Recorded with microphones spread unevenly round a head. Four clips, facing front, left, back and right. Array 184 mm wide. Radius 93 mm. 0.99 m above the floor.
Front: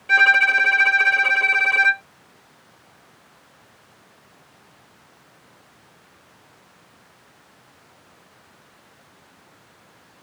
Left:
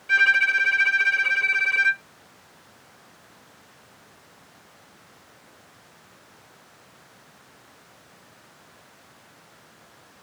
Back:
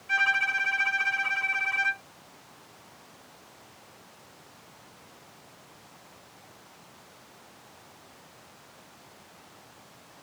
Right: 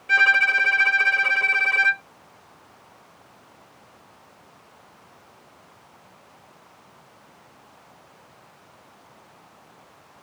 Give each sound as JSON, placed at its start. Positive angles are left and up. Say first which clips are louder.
{"t": 0.1, "sound": "a violin", "louder": "right 1 dB, front 10 dB", "azimuth_deg": -15}